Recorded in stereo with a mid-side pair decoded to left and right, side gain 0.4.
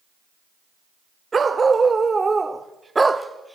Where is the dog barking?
35° right, 2.0 m; by 3.5 s 10° right, 1.0 m.